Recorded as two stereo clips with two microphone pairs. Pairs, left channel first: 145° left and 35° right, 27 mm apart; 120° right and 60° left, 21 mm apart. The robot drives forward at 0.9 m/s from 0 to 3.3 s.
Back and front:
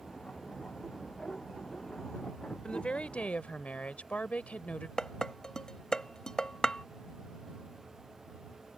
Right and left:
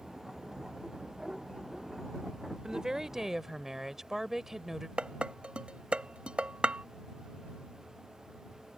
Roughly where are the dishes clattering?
Left.